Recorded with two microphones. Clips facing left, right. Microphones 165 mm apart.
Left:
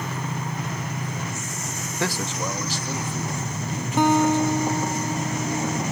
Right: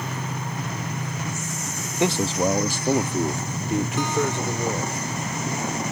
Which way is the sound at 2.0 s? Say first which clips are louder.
Right 6 dB; 15° right (ahead or behind).